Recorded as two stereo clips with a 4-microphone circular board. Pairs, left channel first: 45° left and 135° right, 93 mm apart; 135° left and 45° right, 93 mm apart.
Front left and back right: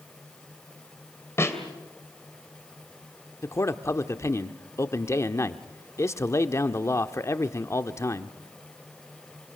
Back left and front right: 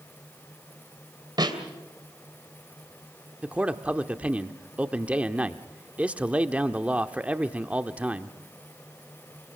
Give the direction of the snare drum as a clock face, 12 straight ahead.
12 o'clock.